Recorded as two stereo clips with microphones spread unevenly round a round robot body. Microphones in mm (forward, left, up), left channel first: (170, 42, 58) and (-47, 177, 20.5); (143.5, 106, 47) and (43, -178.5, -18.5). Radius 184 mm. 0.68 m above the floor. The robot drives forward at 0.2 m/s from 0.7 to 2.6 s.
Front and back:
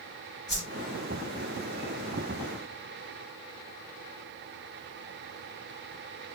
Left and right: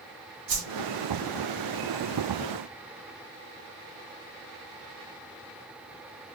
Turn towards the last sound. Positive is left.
turn(degrees=-120)